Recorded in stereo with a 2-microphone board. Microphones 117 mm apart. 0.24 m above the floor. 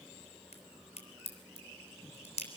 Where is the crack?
60° left (ahead or behind), 3.5 m.